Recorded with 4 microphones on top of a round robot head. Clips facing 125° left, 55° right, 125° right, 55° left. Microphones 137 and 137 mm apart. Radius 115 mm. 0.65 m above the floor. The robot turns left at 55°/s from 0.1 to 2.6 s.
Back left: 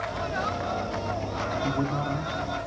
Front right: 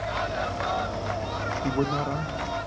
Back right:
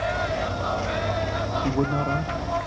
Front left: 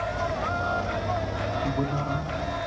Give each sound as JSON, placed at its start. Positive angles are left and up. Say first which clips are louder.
{"t": 1.6, "sound": "a man speaking", "louder": "front right 3 dB, back right 6 dB", "azimuth_deg": -100, "distance_m": 1.5}